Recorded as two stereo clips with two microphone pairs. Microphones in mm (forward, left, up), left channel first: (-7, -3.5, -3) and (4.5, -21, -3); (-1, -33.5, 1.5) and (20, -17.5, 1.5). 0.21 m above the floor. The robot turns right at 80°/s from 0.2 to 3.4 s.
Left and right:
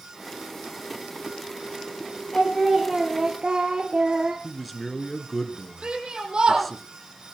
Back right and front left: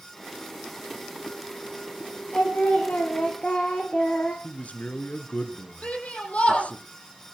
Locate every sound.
2.3 s singing: 170° left, 5.5 m; by 4.3 s 105° right, 5.5 m
4.4 s a man speaking: 155° right, 2.5 m
5.8 s a shout: 110° right, 10 m